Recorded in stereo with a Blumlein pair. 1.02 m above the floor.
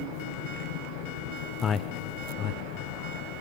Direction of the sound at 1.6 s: 20° left.